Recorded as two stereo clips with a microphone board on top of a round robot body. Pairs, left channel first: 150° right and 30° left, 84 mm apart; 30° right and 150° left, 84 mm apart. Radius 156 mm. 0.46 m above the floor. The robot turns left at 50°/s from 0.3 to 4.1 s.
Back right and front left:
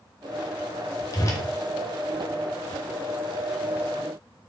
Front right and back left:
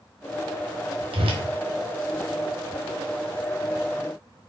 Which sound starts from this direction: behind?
A whoosh, at 1.1 s.